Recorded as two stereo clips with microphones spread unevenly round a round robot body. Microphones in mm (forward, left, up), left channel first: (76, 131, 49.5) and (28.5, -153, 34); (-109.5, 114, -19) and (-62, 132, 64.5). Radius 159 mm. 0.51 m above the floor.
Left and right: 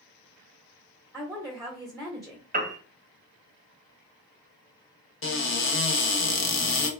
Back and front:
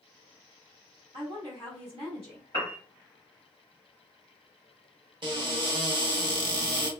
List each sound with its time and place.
1.1 s a woman speaking: straight ahead, 1.2 m
2.5 s a piano: 35° right, 0.8 m
5.2 s a cupboard door: 35° left, 0.7 m